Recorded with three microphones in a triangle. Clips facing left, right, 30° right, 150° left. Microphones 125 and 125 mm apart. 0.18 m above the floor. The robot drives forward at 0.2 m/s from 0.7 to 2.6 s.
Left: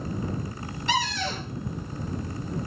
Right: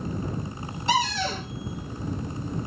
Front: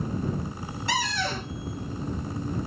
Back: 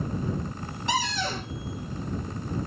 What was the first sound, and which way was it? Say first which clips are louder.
A cupboard door: right 3 dB, back 1 dB; 140° right.